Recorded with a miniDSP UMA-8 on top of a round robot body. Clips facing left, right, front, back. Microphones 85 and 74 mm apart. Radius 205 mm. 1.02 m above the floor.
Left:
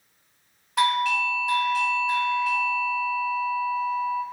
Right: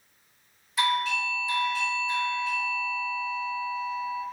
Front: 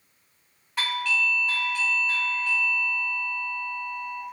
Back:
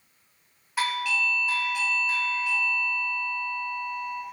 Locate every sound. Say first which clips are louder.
0.8 s a doorbell: left 4 dB, even; 100° left, 1.0 m